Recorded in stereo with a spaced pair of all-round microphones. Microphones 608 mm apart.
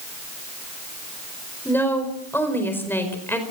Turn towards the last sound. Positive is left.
turn(degrees=5)  # may be behind; listen again after turning